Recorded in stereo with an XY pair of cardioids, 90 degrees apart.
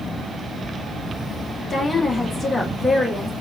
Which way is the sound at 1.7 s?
30° left.